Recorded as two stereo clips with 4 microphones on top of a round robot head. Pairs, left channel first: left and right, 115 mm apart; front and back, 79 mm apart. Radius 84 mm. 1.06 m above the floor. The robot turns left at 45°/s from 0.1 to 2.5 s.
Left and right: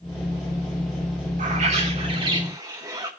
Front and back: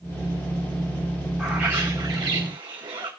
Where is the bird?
100° right, 2.5 m; by 3.1 s 150° right, 2.5 m.